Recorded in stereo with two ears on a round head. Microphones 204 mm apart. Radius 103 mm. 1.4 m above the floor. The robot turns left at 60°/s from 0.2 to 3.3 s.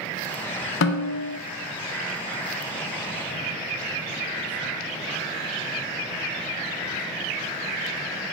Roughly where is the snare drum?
Behind left.